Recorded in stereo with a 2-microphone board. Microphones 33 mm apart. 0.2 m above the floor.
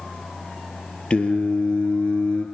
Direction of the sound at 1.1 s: 35° left (ahead or behind).